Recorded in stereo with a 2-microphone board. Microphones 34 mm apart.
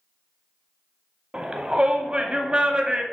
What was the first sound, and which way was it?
A shout, 30° right (ahead or behind).